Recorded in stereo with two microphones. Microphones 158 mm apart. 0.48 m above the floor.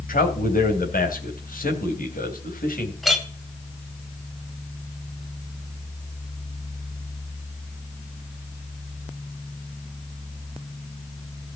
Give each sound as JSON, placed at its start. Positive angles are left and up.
{"t": 0.1, "sound": "a man speaking", "side_deg": 65, "distance_m": 3.0}
{"t": 3.0, "sound": "a clink", "side_deg": 0, "distance_m": 1.9}